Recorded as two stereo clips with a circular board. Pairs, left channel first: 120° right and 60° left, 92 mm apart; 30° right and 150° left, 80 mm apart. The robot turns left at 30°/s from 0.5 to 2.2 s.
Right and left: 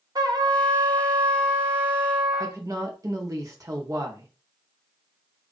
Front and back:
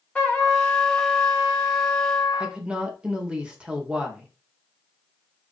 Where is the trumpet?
40° left, 0.9 m; by 2.6 s 10° right, 0.9 m.